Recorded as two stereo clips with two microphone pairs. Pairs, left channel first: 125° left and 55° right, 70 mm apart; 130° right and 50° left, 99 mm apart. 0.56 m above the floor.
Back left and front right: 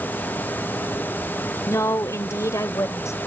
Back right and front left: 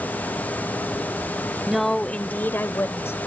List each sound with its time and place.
1.7 s a woman speaking: 135° left; by 3.2 s 170° left